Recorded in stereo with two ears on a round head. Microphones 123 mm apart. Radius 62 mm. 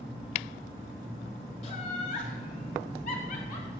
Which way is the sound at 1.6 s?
45° left (ahead or behind).